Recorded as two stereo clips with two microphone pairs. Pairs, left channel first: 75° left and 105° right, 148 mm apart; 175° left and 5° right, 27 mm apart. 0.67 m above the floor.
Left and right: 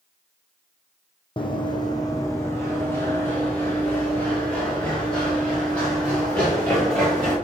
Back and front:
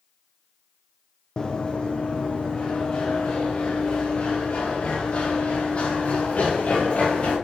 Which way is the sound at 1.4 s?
120° left.